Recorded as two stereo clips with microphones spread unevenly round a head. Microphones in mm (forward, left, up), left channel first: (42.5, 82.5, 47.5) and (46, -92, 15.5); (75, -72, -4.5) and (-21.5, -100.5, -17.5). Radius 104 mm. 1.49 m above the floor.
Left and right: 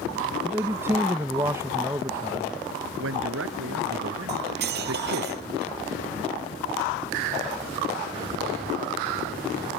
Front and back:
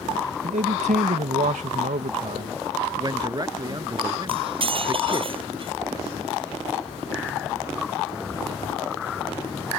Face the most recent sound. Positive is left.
turn(degrees=-130)